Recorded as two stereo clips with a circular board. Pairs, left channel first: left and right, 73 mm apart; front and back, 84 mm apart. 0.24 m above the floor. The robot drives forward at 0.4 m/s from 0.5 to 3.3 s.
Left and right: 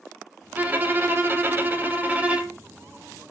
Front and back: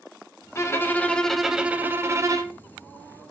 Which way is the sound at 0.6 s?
35° right.